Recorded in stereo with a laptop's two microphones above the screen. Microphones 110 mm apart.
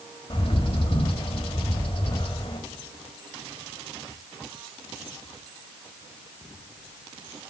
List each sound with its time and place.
0.3 s a bird: 55° left (ahead or behind), 1.4 m